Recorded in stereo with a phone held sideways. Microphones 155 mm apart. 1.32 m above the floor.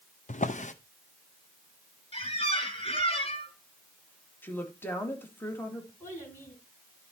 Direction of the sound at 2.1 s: 40° left (ahead or behind).